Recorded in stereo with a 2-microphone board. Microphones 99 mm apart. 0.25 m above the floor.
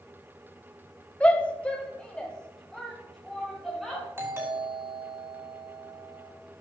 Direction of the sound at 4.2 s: 25° right (ahead or behind).